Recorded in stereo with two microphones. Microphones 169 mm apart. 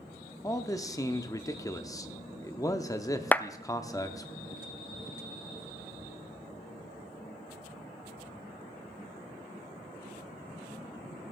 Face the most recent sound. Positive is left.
turn(degrees=10)  # may be behind; listen again after turning